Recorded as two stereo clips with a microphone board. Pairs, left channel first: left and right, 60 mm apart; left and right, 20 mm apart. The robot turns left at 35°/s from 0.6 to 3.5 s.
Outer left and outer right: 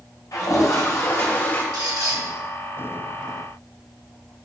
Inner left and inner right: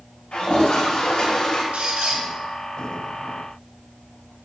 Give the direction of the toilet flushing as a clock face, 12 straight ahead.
10 o'clock.